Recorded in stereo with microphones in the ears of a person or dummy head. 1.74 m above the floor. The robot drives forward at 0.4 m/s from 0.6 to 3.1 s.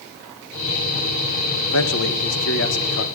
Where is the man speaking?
75° left (ahead or behind), 1.8 m; by 3.1 s 65° left (ahead or behind), 2.0 m.